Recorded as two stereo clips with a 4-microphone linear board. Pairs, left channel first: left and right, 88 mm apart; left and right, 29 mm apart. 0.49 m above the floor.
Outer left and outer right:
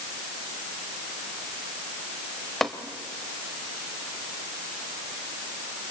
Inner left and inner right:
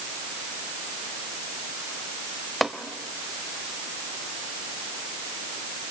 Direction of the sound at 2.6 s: Centre (ahead or behind).